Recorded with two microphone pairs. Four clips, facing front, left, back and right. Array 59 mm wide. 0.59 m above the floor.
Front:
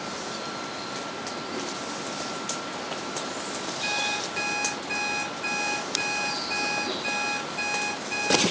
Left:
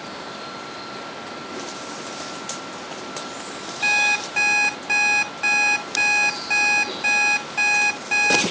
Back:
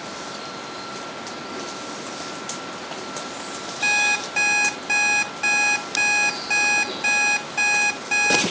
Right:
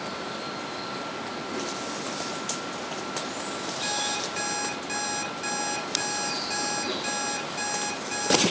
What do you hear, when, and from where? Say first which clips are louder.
3.8 s an alarm clock: left 14 dB, back 10 dB; 125° left, 2.5 m